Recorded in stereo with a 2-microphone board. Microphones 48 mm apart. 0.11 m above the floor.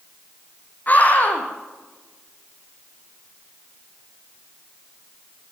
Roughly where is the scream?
Left.